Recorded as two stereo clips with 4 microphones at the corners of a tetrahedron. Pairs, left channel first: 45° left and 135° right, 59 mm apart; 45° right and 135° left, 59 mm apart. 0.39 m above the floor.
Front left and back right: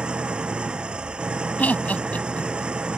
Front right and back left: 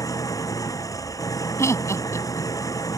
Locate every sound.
0.0 s an engine running: 60° right
1.6 s laughter: 20° right